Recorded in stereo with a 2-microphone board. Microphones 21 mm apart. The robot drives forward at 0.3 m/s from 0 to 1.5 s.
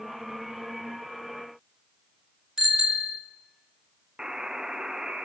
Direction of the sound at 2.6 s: 20° right (ahead or behind).